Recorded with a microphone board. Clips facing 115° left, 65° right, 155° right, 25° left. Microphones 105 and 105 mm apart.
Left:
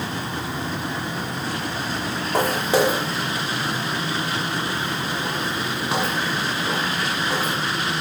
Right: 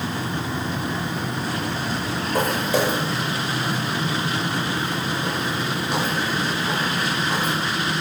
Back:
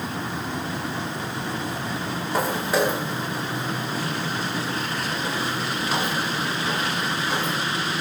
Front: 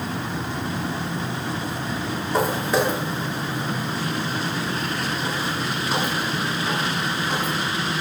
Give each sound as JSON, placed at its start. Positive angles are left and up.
{"t": 2.3, "sound": "footsteps", "azimuth_deg": 115, "distance_m": 3.0}